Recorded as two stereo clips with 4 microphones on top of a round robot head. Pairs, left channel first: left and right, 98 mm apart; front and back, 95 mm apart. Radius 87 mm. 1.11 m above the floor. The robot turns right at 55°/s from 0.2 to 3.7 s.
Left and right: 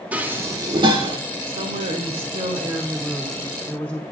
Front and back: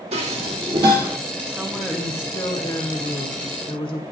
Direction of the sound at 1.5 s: 110° right.